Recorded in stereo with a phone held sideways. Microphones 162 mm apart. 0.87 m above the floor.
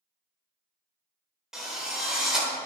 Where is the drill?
5° right (ahead or behind), 2 m.